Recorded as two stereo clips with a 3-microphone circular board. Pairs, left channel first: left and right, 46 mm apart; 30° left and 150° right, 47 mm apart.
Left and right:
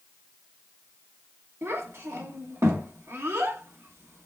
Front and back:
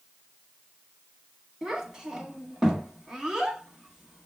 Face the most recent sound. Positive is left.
turn(degrees=-75)